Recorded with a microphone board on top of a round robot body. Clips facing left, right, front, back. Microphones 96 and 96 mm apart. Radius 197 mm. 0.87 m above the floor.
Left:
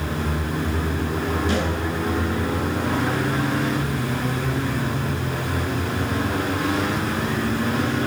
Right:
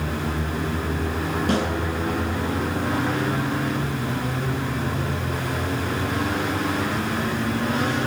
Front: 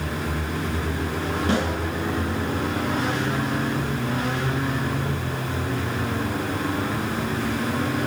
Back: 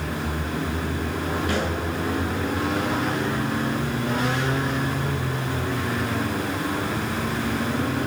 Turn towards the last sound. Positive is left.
turn(degrees=-60)